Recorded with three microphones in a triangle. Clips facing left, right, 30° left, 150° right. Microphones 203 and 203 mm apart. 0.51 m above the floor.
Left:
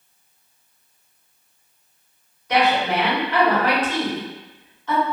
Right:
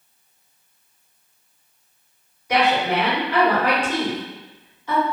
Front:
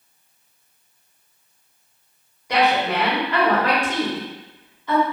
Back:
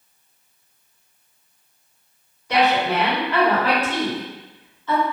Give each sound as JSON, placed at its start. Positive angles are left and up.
{"t": 2.5, "sound": "a woman speaking", "azimuth_deg": -30, "distance_m": 1.2}